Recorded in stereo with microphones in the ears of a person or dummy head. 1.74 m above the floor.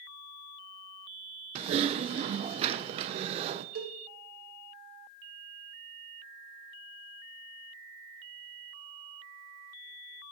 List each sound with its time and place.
1.6 s typing on a keyboard: 35° right (ahead or behind), 0.6 m
3.8 s a cowbell: 75° right (ahead or behind), 2.5 m